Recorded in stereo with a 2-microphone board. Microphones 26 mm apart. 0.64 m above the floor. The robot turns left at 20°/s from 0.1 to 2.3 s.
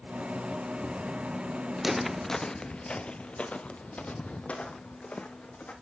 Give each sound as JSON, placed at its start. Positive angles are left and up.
{"t": 1.8, "sound": "footsteps", "side_deg": -15, "distance_m": 0.6}